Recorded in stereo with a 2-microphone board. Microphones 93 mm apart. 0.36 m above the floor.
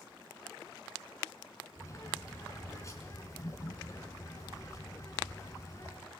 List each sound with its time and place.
1.8 s a bird: 30° left (ahead or behind), 4.5 m